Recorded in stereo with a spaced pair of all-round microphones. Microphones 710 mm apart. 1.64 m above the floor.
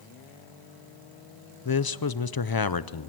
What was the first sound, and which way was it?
A man speaking, 35° left (ahead or behind).